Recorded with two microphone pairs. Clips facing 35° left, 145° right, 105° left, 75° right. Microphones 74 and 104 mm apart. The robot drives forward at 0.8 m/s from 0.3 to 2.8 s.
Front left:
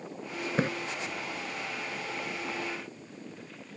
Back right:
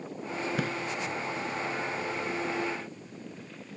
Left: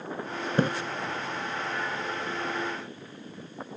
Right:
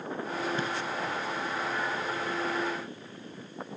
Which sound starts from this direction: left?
A splash, at 0.6 s.